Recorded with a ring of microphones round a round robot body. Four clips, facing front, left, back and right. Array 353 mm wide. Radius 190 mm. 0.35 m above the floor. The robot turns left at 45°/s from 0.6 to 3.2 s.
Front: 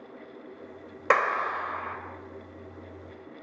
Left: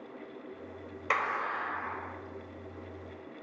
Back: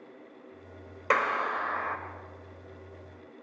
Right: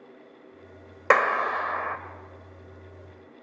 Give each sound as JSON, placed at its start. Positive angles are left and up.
{"t": 1.1, "sound": "a clap", "azimuth_deg": -70, "distance_m": 1.7}